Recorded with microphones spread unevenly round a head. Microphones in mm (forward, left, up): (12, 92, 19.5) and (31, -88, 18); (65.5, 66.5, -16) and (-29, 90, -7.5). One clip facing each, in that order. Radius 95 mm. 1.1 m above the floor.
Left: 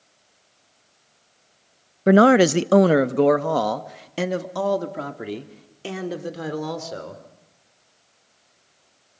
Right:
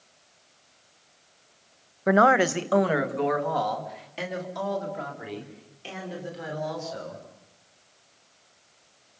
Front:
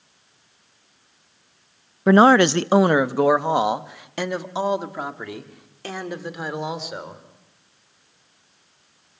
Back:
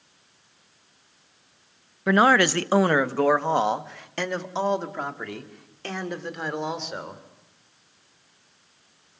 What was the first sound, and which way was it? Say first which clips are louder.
A man speaking: left 7 dB, front 5 dB; 40° left.